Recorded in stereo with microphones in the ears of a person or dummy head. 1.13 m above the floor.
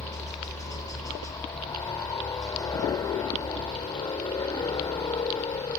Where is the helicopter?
15° left (ahead or behind).